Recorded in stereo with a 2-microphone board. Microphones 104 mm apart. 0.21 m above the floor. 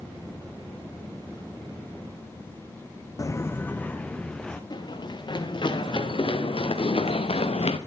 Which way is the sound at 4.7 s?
45° left (ahead or behind).